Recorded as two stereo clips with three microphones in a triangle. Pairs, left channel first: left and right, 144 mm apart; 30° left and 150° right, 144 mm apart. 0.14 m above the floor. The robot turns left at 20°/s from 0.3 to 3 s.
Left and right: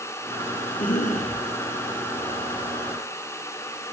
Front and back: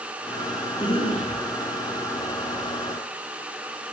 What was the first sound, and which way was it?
A cough, 80° left.